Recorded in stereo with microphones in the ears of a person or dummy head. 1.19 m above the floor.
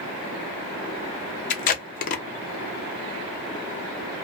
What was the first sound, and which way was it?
Tape being pulled, 40° left (ahead or behind).